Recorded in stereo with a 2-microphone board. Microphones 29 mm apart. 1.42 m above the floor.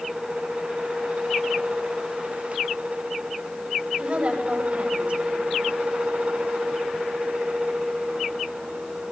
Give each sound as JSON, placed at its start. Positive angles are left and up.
{"t": 4.0, "sound": "a woman speaking", "side_deg": -35, "distance_m": 9.0}